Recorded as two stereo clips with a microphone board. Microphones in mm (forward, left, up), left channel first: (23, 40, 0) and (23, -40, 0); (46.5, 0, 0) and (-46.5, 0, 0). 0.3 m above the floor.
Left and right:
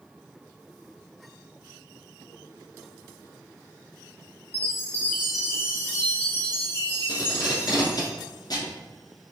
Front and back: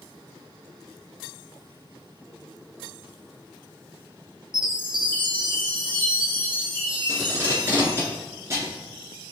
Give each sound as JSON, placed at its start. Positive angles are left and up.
{"t": 4.5, "sound": "a chime", "azimuth_deg": 150, "distance_m": 1.6}
{"t": 7.1, "sound": "tape being pulled", "azimuth_deg": 120, "distance_m": 1.8}